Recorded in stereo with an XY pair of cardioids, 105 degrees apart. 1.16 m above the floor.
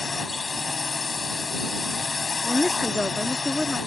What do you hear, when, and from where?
0.0 s a drone: 30° left
2.4 s a woman speaking: 15° left